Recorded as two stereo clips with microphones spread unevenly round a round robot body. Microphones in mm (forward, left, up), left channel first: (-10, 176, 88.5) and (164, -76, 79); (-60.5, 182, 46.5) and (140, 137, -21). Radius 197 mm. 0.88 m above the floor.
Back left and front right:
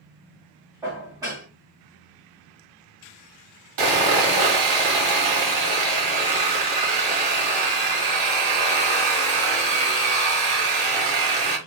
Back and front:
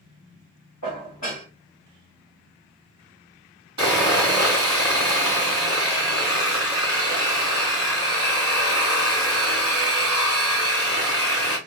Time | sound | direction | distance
0.8 | dishes clattering | 135° right | 1.2 m
3.8 | sawing | 95° right | 1.3 m